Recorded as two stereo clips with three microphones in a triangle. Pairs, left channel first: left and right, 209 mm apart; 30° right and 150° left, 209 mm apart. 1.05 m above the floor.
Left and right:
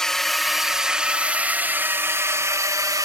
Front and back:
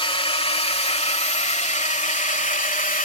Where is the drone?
5° left; by 3.1 s 25° right.